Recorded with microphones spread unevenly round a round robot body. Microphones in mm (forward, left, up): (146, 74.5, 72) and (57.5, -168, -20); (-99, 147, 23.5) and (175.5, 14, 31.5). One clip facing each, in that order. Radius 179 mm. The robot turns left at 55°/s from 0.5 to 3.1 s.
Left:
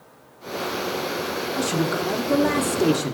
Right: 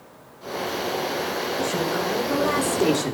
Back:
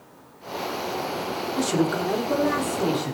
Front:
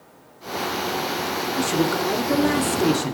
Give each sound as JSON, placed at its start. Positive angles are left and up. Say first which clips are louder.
{"t": 1.6, "sound": "a man speaking", "louder": "left 3 dB, even", "azimuth_deg": 70, "distance_m": 3.0}